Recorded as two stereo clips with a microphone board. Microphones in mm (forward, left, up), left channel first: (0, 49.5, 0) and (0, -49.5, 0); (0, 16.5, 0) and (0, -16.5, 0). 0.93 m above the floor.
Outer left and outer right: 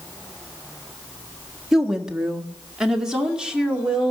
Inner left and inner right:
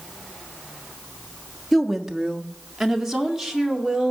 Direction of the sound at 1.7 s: 5° right (ahead or behind).